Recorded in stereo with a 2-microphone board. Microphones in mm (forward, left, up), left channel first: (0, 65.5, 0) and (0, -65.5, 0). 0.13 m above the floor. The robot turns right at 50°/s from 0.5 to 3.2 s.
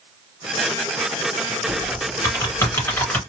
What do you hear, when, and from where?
1.7 s typing on a keyboard: 25° left (ahead or behind), 1.5 m; by 3.2 s 10° left (ahead or behind), 1.5 m